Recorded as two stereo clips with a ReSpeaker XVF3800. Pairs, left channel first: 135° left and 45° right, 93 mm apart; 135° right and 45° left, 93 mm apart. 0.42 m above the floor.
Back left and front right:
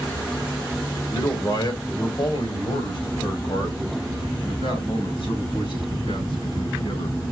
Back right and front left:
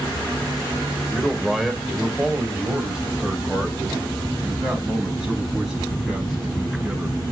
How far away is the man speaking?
About 1.9 m.